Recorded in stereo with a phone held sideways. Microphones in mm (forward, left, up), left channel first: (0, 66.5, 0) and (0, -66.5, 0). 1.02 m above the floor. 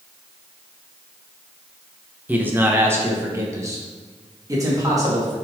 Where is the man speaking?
10° right (ahead or behind), 0.9 m; by 5.3 s 25° right (ahead or behind), 2.5 m.